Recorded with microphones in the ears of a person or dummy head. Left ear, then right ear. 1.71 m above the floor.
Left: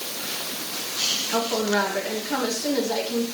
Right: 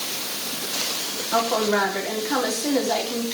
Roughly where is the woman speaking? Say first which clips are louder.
Right 7 dB; centre.